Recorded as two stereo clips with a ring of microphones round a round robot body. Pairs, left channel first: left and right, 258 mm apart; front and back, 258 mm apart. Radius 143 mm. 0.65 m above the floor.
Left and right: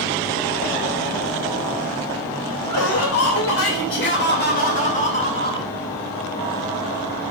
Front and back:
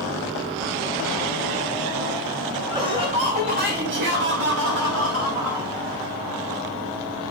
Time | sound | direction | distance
2.7 | laughter | 105° left | 2.5 m